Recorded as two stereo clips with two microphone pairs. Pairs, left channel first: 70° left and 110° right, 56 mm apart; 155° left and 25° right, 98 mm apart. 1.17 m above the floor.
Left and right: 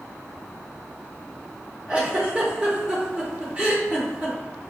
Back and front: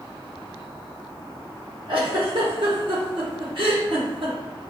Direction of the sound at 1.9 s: 45° right.